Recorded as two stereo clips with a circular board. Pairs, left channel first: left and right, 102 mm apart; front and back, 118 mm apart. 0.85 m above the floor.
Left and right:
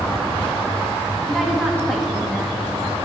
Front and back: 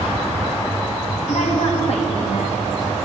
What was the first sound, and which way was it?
A woman speaking, straight ahead.